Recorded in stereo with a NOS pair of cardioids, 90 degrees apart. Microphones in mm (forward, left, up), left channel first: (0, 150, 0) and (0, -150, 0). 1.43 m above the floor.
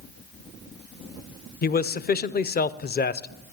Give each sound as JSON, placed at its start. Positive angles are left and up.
{"t": 1.6, "sound": "a man speaking", "azimuth_deg": 30, "distance_m": 0.7}